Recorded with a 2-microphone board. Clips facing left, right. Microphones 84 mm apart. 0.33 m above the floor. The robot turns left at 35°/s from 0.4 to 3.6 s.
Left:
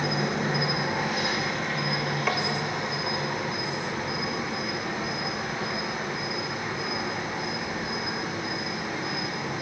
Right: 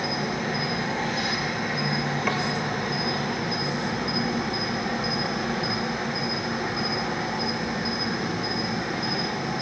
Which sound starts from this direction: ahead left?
An insect, at 0.0 s.